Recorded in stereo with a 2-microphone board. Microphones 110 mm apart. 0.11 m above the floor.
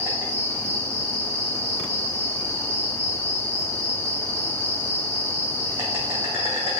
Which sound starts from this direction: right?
An insect, at 0.0 s.